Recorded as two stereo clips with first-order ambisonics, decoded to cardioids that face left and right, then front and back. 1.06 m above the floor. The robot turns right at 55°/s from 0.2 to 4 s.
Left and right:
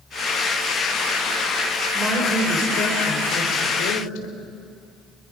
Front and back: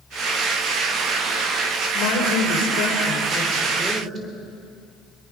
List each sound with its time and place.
1.9 s a woman speaking: 10° right, 4 m; by 4.4 s 105° left, 4 m